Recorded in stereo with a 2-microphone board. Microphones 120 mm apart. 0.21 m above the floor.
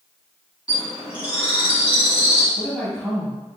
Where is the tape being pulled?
I don't hear tape being pulled.